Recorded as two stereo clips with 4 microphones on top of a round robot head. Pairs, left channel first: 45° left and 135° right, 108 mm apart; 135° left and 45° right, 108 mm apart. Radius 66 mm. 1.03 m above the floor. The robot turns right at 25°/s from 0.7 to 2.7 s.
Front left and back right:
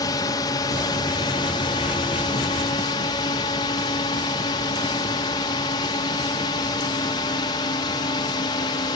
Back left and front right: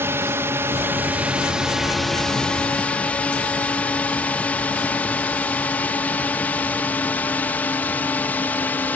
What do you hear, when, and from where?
0.0 s a drone: 15° left; by 9.0 s 70° left